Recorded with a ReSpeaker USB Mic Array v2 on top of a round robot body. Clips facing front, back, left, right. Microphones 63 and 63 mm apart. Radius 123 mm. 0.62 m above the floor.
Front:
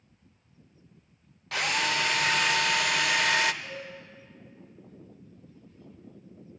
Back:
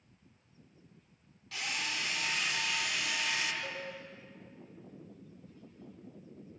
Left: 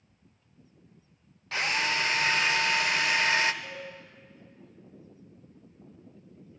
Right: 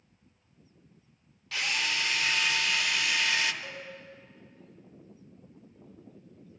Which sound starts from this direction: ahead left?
A drill, at 1.5 s.